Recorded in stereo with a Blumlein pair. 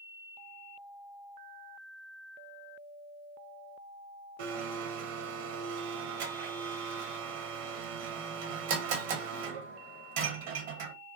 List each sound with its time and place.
4.4 s a blender: 50° right, 0.6 m